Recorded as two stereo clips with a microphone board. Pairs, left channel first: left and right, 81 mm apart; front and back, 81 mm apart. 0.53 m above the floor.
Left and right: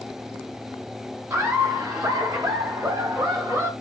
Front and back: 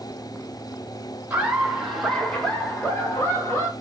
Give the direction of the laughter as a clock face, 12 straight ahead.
4 o'clock.